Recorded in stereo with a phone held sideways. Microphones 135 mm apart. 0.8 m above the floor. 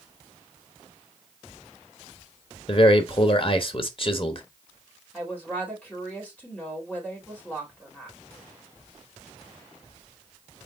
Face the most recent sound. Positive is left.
turn(degrees=10)  # may be behind; listen again after turning